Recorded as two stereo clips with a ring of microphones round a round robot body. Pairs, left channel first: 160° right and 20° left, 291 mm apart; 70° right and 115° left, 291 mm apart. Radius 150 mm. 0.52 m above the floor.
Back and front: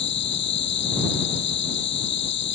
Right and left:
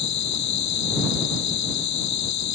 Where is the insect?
105° right.